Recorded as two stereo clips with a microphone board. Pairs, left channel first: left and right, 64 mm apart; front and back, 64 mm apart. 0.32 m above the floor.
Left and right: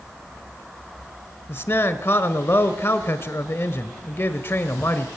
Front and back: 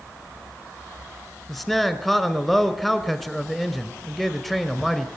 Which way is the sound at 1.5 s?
85° left.